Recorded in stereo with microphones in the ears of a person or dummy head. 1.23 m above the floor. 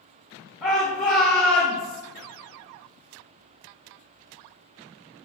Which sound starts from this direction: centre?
A shout, at 0.6 s.